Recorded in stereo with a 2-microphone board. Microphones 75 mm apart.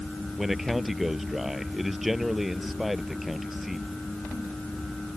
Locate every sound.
0.4 s a man speaking: 5° right (ahead or behind)